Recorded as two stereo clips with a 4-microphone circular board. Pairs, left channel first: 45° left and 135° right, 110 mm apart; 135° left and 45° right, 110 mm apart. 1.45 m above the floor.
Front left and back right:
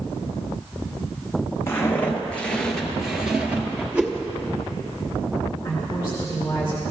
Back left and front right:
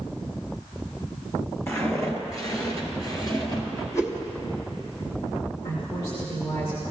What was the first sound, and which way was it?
Footsteps, 90° left.